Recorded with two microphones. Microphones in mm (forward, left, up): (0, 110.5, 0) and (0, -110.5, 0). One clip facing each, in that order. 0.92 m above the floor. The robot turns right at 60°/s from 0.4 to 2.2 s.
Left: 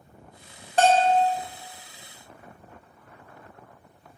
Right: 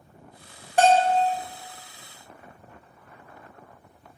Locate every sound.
0.8 s a bell: 10° right (ahead or behind), 0.5 m; by 1.2 s 25° right (ahead or behind), 0.5 m